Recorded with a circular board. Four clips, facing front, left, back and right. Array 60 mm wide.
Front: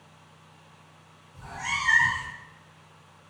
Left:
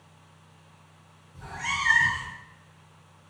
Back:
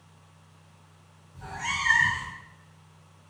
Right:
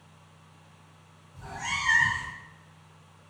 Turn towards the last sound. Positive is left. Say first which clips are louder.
# left 2 dB, even
turn(degrees=110)